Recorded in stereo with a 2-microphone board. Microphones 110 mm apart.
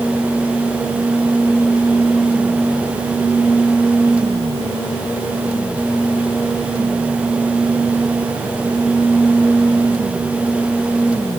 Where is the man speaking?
No man speaking in this recording.